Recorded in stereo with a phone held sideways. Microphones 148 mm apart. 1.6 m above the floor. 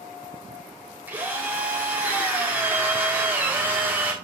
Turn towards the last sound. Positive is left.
turn(degrees=-10)  # may be behind; listen again after turning